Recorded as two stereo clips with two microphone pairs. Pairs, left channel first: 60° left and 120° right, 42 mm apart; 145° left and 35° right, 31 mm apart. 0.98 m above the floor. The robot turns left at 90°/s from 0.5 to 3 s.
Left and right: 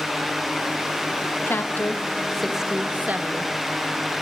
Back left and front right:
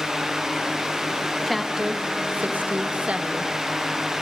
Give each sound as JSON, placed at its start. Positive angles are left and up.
{"t": 1.5, "sound": "a woman speaking", "azimuth_deg": 65, "distance_m": 1.4}